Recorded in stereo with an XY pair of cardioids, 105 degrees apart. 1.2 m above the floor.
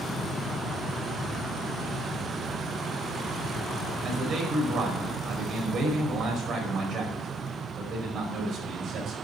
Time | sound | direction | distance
4.0 | a man speaking | 65° right | 5 m